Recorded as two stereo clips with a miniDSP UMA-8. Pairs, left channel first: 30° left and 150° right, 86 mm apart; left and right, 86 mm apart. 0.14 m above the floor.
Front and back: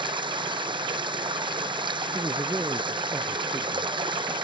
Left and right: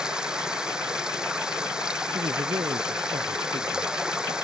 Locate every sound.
0.0 s running water: 170° right
2.1 s a man speaking: 80° right